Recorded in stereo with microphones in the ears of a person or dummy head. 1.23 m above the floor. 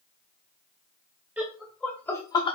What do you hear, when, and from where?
1.4 s laughter: centre (ahead or behind), 1.1 m; by 2.6 s 35° left (ahead or behind), 0.8 m